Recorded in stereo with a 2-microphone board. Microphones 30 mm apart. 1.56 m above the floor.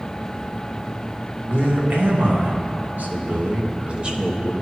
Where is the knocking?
No knocking in this recording.